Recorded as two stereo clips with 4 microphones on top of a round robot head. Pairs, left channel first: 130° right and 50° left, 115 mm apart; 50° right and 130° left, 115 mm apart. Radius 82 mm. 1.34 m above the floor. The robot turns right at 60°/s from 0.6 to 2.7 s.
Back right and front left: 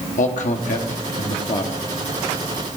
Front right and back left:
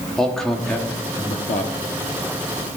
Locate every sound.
0.2 s a man speaking: 135° right, 1.0 m; by 1.8 s 65° right, 1.0 m